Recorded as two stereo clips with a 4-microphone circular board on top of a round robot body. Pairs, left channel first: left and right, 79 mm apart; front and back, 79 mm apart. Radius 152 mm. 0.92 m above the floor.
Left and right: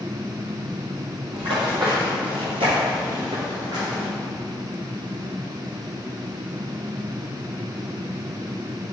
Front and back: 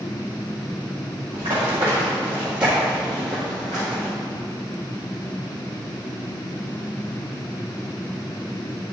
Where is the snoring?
I don't hear snoring.